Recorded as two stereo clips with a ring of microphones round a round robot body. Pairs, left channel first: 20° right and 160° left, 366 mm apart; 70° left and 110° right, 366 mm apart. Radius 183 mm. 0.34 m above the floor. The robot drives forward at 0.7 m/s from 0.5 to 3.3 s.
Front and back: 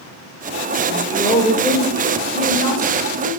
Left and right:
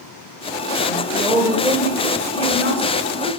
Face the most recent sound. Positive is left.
turn(degrees=-165)